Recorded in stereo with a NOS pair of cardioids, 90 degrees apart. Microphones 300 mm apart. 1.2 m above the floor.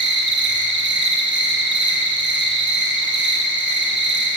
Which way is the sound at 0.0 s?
40° right.